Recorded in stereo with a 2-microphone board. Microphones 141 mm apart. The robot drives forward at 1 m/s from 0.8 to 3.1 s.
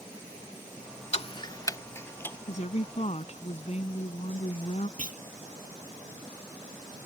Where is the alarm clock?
No alarm clock in this recording.